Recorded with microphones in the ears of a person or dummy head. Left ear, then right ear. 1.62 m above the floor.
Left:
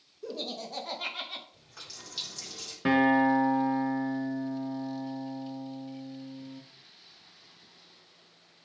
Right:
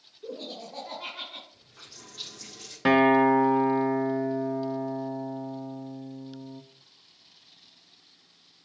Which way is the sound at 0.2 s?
70° left (ahead or behind).